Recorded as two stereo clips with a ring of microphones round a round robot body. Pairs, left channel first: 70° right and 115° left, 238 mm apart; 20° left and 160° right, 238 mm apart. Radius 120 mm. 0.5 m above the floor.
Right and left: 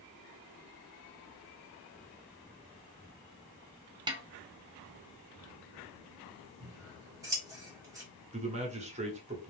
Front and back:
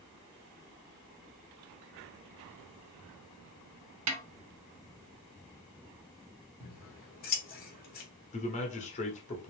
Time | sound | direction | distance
4.1 | a snare drum | 175° right | 0.8 m
6.6 | scissors | 45° left | 1.6 m
8.3 | a man speaking | 65° left | 1.3 m